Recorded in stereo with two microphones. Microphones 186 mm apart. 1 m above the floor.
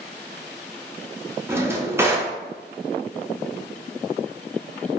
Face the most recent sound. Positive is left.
turn(degrees=-15)  # may be behind; listen again after turning